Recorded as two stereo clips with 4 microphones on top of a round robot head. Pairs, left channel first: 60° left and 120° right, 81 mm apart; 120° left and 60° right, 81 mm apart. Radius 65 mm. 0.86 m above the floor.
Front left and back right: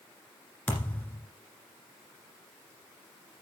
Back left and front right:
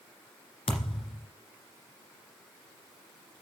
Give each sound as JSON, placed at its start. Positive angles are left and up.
{"t": 0.7, "sound": "a thud", "azimuth_deg": 130, "distance_m": 1.9}